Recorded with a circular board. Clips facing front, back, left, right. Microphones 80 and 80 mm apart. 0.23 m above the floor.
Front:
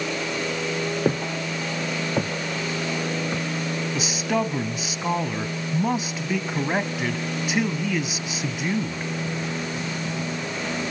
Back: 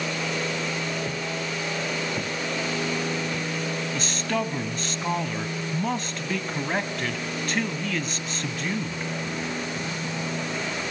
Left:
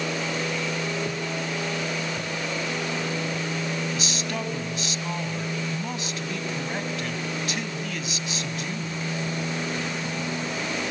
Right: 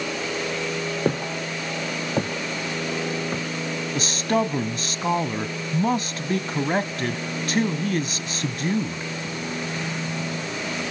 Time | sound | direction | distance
1.1 | footsteps | 45° right | 2.5 m
4.0 | a man speaking | 75° right | 1.5 m